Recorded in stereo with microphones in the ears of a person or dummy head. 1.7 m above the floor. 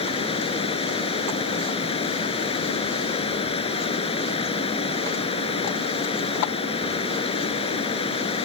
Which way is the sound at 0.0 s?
25° left (ahead or behind).